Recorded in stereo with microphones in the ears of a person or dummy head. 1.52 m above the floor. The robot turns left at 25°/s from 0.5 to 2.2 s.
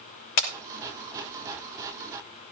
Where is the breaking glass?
65° left (ahead or behind), 3 m.